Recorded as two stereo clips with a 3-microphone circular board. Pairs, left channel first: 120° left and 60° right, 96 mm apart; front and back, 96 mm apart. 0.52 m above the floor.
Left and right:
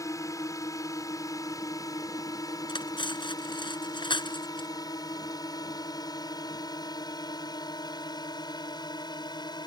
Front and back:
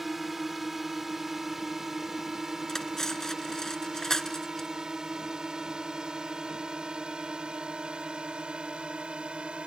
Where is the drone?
95° left; by 9.7 s 105° left.